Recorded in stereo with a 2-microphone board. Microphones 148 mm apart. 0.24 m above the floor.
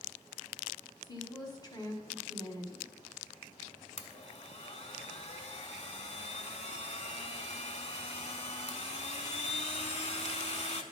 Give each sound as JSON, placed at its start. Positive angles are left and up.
{"t": 1.0, "sound": "a woman speaking", "side_deg": 30, "distance_m": 1.4}
{"t": 4.0, "sound": "a blender", "side_deg": 50, "distance_m": 0.6}